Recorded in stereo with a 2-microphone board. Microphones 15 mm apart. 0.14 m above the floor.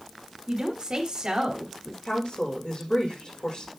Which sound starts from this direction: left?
A woman speaking, at 2.0 s.